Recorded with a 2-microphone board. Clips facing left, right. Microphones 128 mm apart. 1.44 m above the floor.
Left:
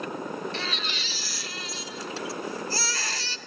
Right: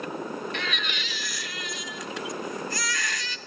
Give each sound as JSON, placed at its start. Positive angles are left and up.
{"t": 0.5, "sound": "a baby crying", "side_deg": 35, "distance_m": 0.8}